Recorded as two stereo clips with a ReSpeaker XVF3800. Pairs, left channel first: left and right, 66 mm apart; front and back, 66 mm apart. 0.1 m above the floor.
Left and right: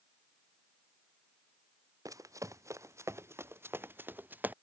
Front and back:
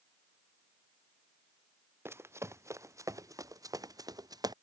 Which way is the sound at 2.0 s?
125° right.